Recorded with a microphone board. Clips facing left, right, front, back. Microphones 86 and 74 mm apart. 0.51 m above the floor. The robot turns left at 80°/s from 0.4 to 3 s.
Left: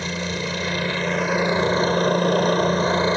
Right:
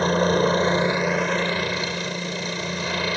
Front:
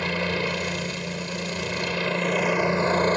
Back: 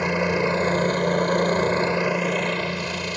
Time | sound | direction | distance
0.0 | a helicopter | 115° right | ?